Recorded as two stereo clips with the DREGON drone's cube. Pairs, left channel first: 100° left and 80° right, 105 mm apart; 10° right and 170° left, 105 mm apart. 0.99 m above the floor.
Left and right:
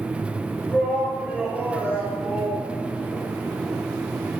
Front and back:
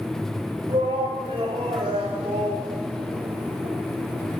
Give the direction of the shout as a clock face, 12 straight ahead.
5 o'clock.